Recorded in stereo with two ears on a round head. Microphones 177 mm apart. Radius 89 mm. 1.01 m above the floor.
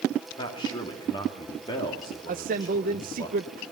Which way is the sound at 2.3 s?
45° right (ahead or behind).